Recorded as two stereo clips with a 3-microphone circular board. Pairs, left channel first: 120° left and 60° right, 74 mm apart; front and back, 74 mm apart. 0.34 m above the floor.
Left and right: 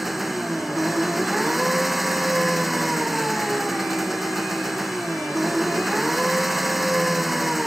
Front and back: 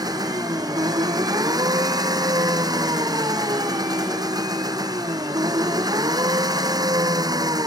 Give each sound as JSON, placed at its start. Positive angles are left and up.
{"t": 0.0, "sound": "an engine running", "azimuth_deg": -150}